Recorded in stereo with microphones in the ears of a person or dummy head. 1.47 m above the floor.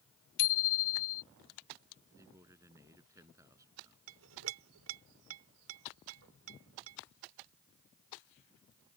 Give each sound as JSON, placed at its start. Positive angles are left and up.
{"t": 0.4, "sound": "a bicycle bell", "side_deg": 75}
{"t": 2.2, "sound": "a man speaking", "side_deg": -15}
{"t": 4.1, "sound": "a clink", "side_deg": -75}